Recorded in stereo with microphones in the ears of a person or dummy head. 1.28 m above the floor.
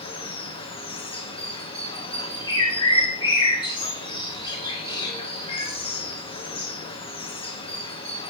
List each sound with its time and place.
0.0 s running water: 30° left (ahead or behind), 0.7 m
2.5 s a bird: 30° left (ahead or behind), 1.2 m